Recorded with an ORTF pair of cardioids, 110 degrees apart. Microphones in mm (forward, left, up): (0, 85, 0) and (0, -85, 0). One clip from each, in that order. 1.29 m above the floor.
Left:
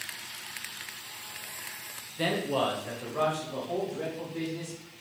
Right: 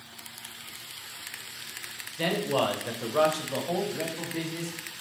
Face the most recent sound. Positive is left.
turn(degrees=-75)